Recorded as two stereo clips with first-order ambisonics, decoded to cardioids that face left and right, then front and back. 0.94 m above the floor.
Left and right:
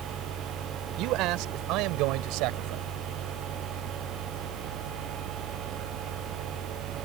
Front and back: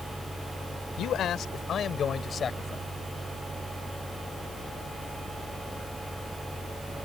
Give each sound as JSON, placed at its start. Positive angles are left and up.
{"t": 1.0, "sound": "a man speaking", "azimuth_deg": -55}